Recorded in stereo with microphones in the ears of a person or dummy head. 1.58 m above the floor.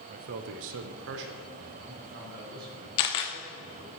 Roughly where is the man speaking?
Right.